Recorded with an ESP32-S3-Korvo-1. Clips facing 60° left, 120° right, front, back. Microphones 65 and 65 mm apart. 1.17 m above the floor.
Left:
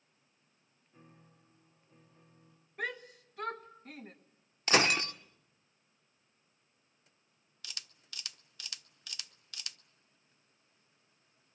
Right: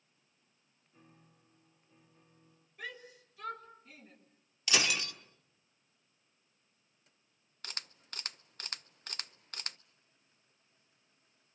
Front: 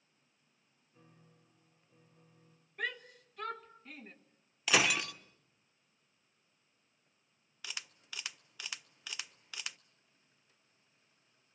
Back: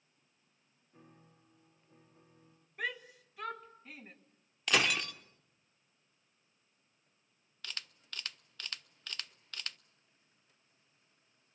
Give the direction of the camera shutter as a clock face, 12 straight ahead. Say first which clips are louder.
Right 4 dB, even; 3 o'clock.